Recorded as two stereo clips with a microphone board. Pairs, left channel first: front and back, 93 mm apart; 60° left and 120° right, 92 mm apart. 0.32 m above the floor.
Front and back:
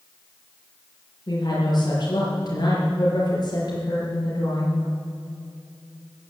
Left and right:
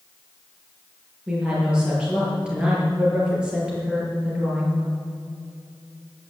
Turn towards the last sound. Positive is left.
turn(degrees=-40)